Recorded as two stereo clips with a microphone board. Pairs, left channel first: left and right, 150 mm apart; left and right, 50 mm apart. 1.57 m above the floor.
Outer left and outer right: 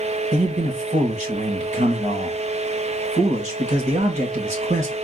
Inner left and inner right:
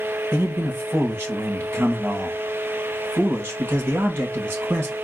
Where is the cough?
No cough in this recording.